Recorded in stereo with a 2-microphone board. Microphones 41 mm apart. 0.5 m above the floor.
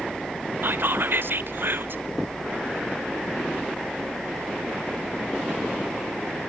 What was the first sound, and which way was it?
Whispering, 60° right (ahead or behind).